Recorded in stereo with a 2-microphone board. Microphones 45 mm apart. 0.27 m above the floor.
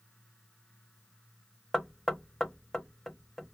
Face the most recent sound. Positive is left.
turn(degrees=10)  # may be behind; listen again after turning